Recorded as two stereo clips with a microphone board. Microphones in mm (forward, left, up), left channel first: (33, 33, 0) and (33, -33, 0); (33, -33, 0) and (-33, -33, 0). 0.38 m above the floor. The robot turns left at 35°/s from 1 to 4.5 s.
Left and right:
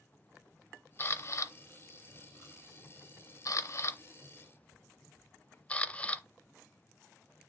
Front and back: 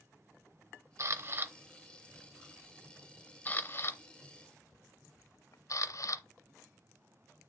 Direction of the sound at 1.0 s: 140° left.